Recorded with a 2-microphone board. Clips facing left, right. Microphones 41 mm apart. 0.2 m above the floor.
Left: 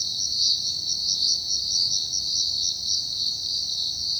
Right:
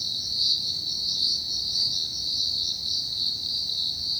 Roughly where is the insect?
Centre.